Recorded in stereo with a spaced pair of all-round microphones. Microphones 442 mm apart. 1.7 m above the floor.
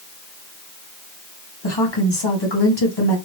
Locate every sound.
1.6 s a woman speaking: 60° left (ahead or behind), 1.4 m